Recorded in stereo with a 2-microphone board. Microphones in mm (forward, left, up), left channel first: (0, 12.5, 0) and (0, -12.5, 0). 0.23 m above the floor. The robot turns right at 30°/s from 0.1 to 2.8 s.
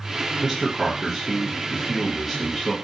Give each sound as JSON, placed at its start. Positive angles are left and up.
{"t": 0.4, "sound": "a man speaking", "side_deg": -15, "distance_m": 0.9}